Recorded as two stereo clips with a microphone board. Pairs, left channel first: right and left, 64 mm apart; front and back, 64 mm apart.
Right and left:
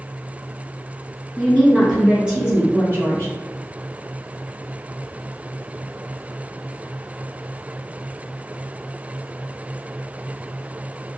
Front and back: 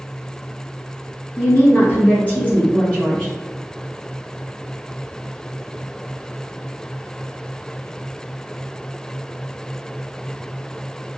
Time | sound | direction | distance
1.4 | a woman speaking | 15° right | 1.4 m